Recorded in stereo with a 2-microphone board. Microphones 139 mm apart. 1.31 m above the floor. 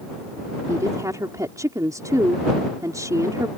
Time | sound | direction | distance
0.7 | a woman speaking | 25° right (ahead or behind) | ?